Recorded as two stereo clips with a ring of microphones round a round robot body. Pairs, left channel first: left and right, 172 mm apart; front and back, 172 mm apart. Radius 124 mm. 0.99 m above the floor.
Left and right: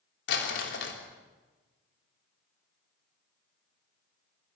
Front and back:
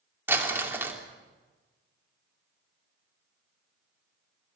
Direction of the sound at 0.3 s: 100° left.